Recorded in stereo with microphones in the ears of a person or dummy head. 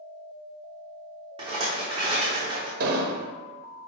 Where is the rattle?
25° right (ahead or behind), 1.0 m.